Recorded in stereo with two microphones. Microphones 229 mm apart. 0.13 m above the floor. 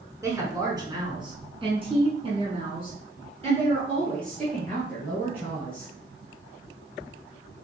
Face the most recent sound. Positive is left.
turn(degrees=-25)  # may be behind; listen again after turning